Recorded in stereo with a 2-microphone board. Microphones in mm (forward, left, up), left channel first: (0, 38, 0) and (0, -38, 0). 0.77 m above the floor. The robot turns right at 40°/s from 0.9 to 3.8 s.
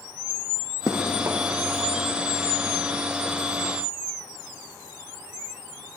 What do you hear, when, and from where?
0.9 s running footsteps: 40° right (ahead or behind), 2 m